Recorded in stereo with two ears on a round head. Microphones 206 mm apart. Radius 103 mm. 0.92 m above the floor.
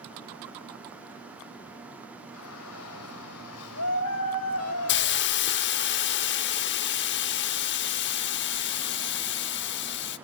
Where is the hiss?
55° left (ahead or behind), 0.8 m.